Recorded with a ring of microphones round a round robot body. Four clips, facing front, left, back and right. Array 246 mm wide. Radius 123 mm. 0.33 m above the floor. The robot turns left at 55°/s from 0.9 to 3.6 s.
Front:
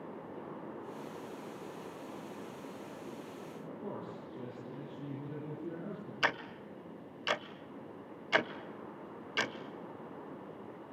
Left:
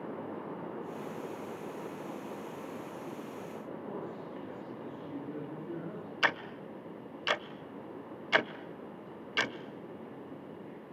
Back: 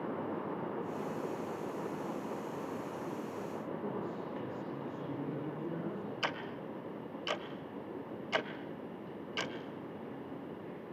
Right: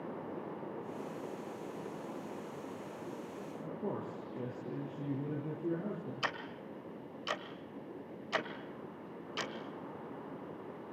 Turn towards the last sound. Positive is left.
turn(degrees=70)